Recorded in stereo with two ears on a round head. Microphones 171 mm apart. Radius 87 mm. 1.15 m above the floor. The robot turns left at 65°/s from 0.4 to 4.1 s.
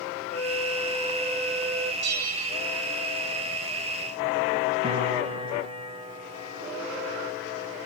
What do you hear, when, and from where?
0.3 s a flute: straight ahead, 3.5 m; by 1.9 s 100° right, 3.5 m
2.0 s a bell: 115° right, 2 m; by 2.6 s 150° right, 2 m
4.8 s a piano: 30° right (ahead or behind), 3 m